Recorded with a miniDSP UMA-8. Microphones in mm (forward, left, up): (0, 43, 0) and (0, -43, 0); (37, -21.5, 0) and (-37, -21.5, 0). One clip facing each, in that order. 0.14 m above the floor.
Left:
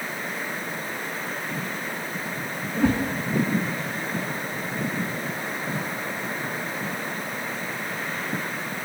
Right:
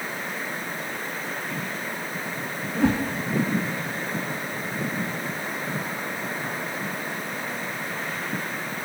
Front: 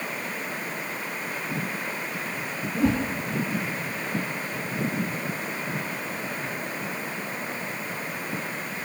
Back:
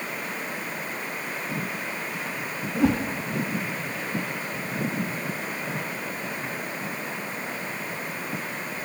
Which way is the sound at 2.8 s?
160° right.